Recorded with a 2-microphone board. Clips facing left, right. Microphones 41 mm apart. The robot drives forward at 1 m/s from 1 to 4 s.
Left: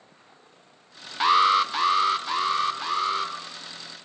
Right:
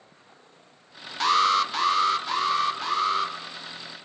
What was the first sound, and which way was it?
An alarm, 15° left (ahead or behind).